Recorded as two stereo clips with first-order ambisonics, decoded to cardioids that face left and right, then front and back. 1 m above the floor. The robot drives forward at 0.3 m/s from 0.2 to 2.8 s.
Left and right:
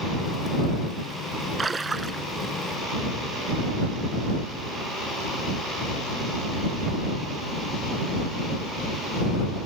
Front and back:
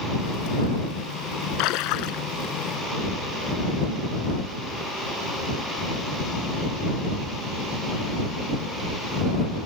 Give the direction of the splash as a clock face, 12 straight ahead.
12 o'clock.